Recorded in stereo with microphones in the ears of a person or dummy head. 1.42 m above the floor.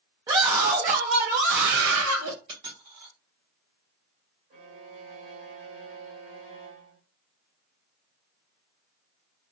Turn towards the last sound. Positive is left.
turn(degrees=-45)  # may be behind; listen again after turning